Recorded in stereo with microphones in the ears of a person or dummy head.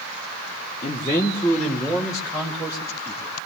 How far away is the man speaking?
About 0.8 m.